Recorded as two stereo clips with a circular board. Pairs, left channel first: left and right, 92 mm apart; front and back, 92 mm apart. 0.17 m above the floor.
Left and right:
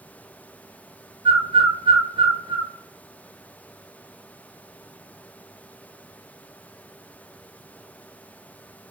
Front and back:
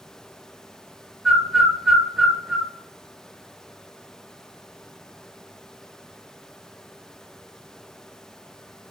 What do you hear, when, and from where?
1.2 s a bird: 95° right, 0.9 m